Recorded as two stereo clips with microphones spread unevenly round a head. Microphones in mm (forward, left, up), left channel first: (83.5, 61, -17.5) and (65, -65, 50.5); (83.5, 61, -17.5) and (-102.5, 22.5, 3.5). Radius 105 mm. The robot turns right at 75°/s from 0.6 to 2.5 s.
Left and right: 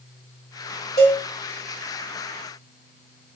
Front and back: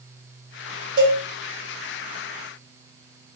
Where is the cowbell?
170° left, 2.0 m; by 1.2 s 175° right, 2.0 m.